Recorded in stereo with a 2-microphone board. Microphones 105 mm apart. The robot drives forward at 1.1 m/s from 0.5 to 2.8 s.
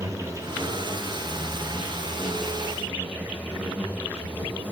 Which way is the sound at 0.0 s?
30° right (ahead or behind).